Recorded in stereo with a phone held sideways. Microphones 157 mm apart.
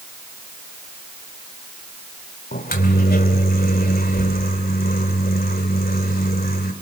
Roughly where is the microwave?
Left.